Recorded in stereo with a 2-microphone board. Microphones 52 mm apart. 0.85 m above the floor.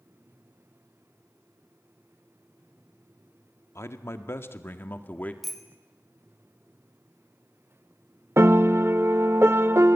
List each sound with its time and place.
3.8 s a man speaking: 60° left (ahead or behind), 1.7 m; by 5.3 s 30° left (ahead or behind), 1.7 m
5.4 s a bicycle bell: centre (ahead or behind), 2 m
8.4 s a piano: 60° right (ahead or behind), 0.7 m